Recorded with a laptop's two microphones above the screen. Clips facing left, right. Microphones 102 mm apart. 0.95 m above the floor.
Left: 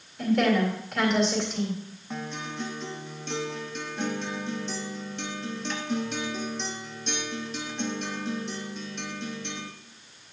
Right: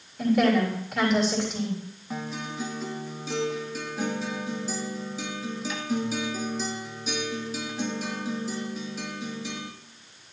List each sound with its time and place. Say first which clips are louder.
0.2 s a woman speaking: right 1 dB; 5° right (ahead or behind), 3 m
2.1 s a guitar: right 1 dB; 5° right (ahead or behind), 0.9 m